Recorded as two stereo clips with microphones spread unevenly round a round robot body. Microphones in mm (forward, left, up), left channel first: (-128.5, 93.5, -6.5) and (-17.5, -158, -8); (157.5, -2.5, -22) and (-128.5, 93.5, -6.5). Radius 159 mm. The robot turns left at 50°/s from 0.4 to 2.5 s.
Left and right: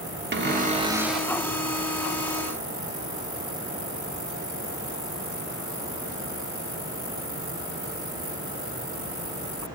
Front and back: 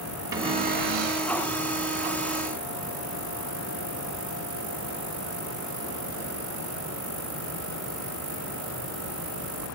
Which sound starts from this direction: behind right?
A cupboard door, at 0.3 s.